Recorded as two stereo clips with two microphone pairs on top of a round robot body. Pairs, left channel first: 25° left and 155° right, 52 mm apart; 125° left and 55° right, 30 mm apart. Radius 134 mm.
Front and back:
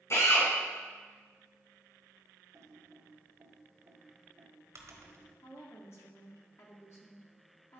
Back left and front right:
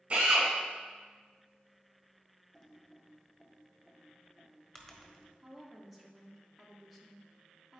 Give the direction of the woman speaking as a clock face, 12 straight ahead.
11 o'clock.